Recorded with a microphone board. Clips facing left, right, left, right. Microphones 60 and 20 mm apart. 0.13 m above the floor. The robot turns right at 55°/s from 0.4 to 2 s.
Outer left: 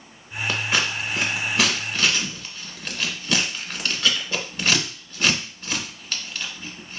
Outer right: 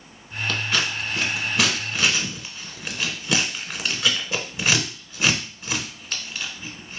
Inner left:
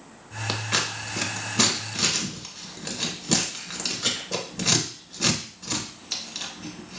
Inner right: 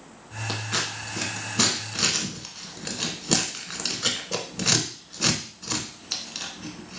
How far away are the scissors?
About 0.9 m.